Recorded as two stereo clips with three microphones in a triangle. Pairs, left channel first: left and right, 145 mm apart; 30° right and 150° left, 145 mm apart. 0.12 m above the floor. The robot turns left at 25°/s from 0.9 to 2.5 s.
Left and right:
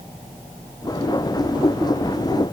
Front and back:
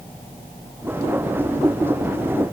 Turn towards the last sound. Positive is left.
No sound to turn to.